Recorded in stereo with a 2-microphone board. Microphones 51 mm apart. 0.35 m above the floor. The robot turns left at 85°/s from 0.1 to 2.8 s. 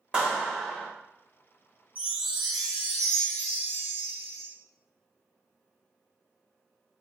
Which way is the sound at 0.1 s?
130° right.